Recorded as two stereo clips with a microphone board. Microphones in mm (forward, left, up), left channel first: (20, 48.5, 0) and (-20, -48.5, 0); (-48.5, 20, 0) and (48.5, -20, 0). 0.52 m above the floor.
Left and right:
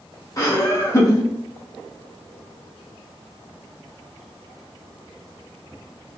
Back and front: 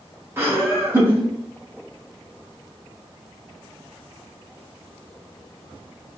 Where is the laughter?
30° left, 0.8 m.